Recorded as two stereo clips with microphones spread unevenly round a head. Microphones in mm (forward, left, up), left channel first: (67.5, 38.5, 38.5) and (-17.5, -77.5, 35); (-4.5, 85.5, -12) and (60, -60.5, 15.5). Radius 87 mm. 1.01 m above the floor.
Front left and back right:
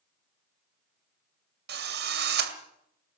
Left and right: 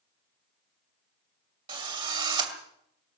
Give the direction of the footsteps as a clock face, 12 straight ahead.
No footsteps in this recording.